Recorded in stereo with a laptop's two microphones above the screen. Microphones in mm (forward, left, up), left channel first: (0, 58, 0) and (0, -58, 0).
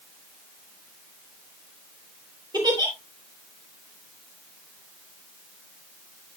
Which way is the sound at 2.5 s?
40° right (ahead or behind).